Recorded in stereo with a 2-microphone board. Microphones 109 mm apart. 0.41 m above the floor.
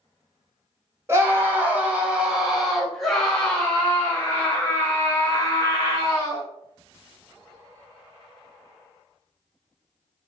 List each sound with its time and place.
1.1 s a scream: 25° right (ahead or behind), 1.8 m; by 6.5 s 30° left (ahead or behind), 3.5 m